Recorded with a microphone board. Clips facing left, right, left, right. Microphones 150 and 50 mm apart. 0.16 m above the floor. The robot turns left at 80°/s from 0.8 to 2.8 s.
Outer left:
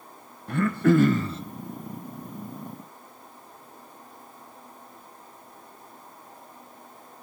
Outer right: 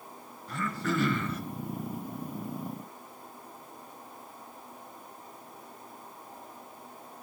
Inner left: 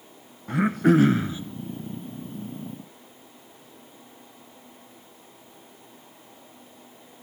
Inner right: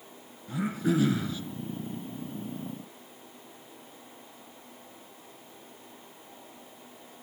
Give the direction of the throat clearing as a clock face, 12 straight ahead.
9 o'clock.